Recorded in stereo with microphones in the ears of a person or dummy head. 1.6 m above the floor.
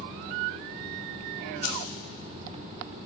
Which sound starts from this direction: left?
Keys jangling, at 1.6 s.